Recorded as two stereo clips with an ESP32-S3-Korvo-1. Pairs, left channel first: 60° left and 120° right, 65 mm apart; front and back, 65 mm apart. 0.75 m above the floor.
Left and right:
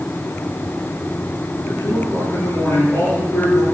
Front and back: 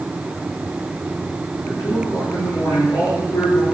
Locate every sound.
1.6 s a man speaking: 10° left, 9.5 m